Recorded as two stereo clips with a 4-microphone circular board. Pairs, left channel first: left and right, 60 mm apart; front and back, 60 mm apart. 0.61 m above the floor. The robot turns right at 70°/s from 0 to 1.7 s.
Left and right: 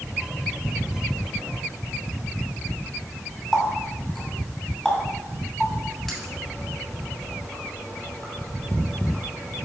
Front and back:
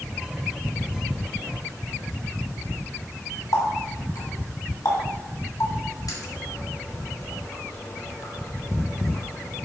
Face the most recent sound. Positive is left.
turn(degrees=0)